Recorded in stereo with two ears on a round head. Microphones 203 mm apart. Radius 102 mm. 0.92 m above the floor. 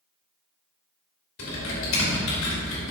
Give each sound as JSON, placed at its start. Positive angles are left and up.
{"t": 1.4, "sound": "typing on a keyboard", "side_deg": 60, "distance_m": 3.0}